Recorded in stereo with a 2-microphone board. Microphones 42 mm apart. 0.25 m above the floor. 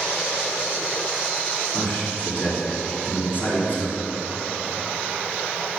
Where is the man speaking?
55° left (ahead or behind), 3 m.